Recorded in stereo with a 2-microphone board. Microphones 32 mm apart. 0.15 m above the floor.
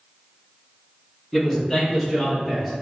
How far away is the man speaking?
About 1.1 m.